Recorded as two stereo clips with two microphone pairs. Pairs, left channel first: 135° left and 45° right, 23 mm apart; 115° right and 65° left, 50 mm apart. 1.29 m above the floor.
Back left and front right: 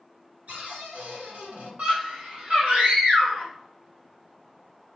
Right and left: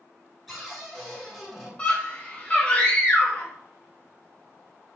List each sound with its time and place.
0.5 s a cupboard door: 25° right, 2.5 m
1.8 s a scream: 55° right, 2.5 m